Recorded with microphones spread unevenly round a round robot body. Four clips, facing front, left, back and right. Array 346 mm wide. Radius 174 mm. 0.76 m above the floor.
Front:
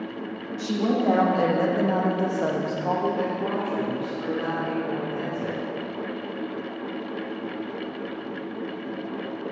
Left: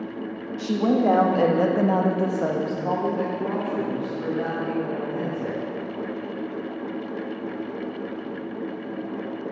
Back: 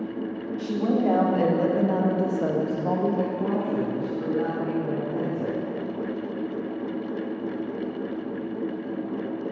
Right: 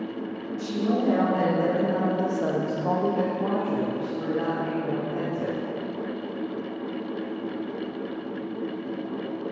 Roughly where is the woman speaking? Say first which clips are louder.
Left 5 dB, even; left.